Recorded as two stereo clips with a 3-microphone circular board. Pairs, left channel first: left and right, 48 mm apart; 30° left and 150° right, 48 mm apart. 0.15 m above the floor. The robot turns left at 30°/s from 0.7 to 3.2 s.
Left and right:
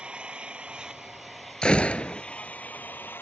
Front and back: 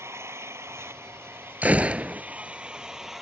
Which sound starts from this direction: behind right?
An engine running, at 0.0 s.